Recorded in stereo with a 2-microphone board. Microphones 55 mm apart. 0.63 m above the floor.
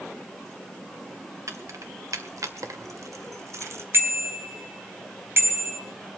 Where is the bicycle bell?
45° right (ahead or behind), 3 m.